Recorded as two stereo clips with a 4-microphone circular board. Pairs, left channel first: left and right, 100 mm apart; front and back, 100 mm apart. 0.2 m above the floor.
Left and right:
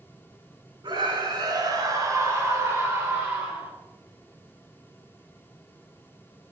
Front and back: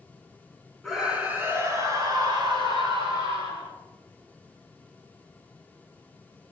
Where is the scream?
90° right, 2.5 m; by 3.7 s 165° right, 5 m.